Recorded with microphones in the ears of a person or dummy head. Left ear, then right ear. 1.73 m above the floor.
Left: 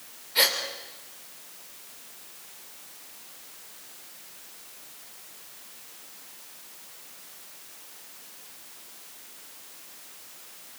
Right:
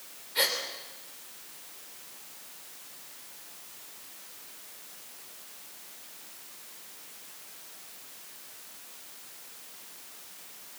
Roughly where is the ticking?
I don't hear ticking.